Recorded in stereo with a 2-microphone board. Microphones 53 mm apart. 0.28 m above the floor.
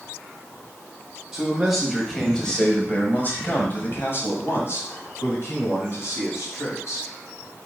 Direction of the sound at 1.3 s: 5° right (ahead or behind).